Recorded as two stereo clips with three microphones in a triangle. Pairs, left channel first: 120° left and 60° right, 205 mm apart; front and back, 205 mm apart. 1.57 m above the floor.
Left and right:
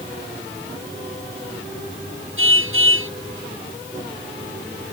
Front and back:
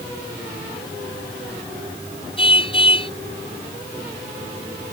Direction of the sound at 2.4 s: 65° right.